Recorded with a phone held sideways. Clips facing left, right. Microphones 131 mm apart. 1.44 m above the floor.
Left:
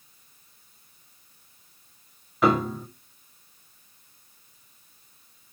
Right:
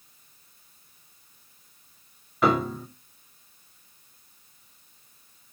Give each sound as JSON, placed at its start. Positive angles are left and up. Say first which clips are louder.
{"t": 2.4, "sound": "a piano", "louder": "left 1 dB", "side_deg": 0, "distance_m": 0.6}